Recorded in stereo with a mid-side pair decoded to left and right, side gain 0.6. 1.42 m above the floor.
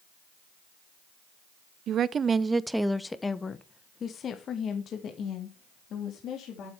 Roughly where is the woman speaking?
Ahead right.